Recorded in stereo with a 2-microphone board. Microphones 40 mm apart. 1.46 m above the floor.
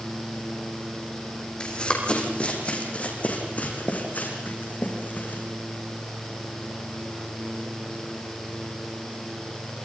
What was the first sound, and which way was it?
Running footsteps, 25° left (ahead or behind).